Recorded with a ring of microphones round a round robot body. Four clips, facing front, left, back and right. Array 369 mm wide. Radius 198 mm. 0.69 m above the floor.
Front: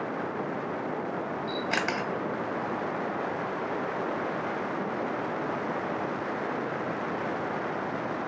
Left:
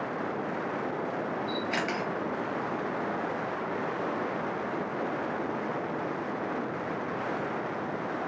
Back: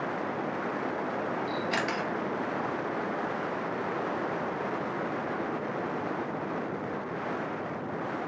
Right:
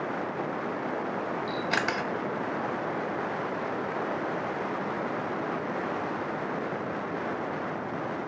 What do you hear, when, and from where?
1.5 s a camera shutter: 65° right, 0.8 m